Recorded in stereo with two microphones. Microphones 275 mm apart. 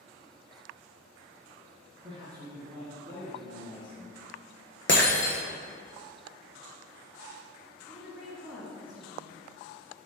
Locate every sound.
2.0 s a man speaking: 20° right (ahead or behind), 1.7 m; by 4.2 s 25° left (ahead or behind), 2.5 m
4.9 s breaking glass: 45° left (ahead or behind), 1.2 m
7.9 s a woman speaking: 5° left (ahead or behind), 1.8 m